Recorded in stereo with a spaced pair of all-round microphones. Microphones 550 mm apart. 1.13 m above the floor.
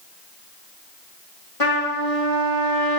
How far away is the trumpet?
About 2.5 m.